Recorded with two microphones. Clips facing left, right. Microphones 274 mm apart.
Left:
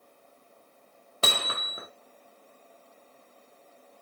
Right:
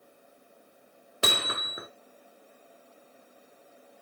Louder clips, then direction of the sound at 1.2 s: Right 1 dB; 20° right (ahead or behind).